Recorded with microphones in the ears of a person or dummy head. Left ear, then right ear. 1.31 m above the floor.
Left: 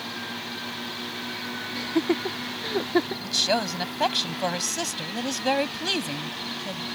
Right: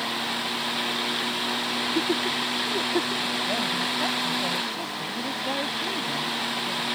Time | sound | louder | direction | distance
1.8 | laughter | left 3 dB | 20° left (ahead or behind) | ?
3.2 | a woman speaking | left 2 dB | 85° left | ?